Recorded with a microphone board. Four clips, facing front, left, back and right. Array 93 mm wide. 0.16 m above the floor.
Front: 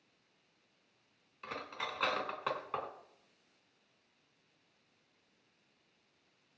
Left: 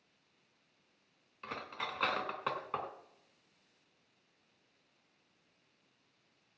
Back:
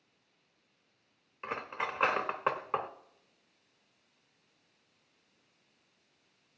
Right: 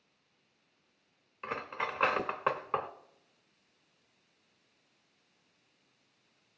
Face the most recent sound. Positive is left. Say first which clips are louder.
# right 6 dB, back 5 dB
turn(degrees=-140)